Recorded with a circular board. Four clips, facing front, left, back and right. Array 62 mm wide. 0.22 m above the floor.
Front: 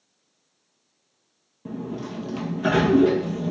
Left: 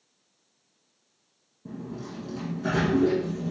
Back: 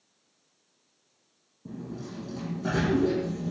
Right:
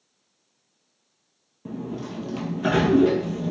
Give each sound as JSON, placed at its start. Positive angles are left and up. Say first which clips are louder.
{"t": 1.6, "sound": "a sliding door", "louder": "right 5 dB, front 7 dB", "azimuth_deg": -45, "distance_m": 1.7}